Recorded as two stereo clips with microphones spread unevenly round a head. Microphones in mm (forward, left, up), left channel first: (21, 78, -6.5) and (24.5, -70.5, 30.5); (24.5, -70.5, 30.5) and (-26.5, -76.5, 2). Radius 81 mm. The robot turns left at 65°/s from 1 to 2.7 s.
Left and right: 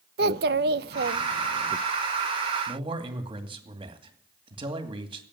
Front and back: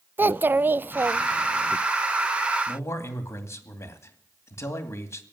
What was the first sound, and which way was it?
A child speaking, 120° right.